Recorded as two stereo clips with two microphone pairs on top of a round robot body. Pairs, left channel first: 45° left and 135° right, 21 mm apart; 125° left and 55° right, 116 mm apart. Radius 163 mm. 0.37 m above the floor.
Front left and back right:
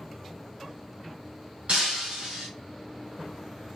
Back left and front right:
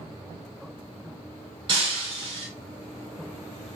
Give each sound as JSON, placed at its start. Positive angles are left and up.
{"t": 1.7, "sound": "breaking glass", "azimuth_deg": -100, "distance_m": 0.6}